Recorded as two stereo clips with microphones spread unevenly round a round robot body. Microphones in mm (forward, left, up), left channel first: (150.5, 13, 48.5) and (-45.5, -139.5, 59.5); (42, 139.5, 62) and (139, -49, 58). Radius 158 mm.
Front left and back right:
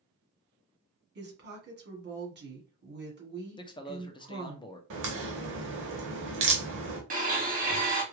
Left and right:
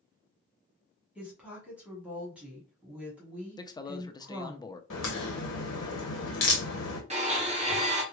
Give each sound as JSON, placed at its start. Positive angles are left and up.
{"t": 1.1, "sound": "a woman speaking", "azimuth_deg": -140, "distance_m": 1.5}
{"t": 3.6, "sound": "a man speaking", "azimuth_deg": 70, "distance_m": 0.6}
{"t": 4.9, "sound": "a crack", "azimuth_deg": 165, "distance_m": 0.6}
{"t": 7.1, "sound": "a blender", "azimuth_deg": -100, "distance_m": 1.6}